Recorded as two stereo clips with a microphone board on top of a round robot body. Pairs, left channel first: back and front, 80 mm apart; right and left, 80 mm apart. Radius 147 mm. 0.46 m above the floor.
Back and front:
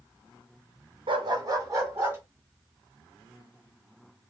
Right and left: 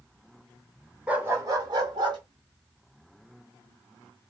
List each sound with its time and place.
1.1 s a dog barking: 10° left, 0.9 m; by 2.2 s 60° left, 2 m